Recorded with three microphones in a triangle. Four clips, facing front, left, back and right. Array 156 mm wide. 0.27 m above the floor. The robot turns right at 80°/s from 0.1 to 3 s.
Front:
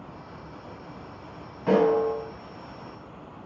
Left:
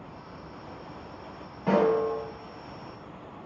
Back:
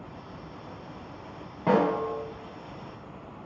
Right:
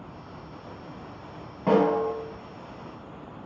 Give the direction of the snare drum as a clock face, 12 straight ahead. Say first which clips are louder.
Right 1 dB, front 3 dB; 5 o'clock.